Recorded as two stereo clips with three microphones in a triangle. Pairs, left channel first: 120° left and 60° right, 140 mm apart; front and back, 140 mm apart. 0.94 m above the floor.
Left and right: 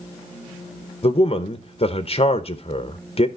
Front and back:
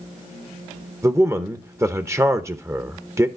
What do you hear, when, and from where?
1.0 s a man speaking: 120° left, 0.8 m